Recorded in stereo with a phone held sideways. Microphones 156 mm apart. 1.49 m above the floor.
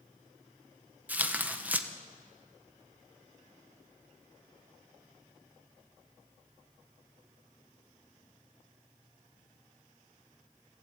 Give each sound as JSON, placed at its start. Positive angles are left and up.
{"t": 1.1, "sound": "tearing paper", "side_deg": -10, "distance_m": 1.2}